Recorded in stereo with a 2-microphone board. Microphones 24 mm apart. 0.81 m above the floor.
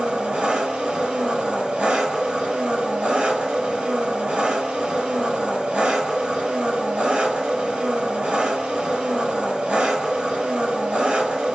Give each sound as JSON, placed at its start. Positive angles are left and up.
{"t": 0.0, "sound": "an engine running", "side_deg": -75, "distance_m": 3.0}